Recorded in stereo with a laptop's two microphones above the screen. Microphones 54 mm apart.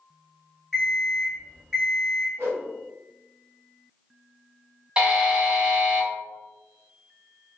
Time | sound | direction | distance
0.7 | an alarm clock | 10° right (ahead or behind) | 1.1 m
2.4 | a whoosh | 55° right (ahead or behind) | 1.4 m
5.0 | a buzzer | 15° right (ahead or behind) | 0.8 m